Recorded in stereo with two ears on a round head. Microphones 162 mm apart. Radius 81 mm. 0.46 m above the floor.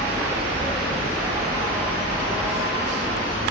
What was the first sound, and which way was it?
An insect, 10° right (ahead or behind).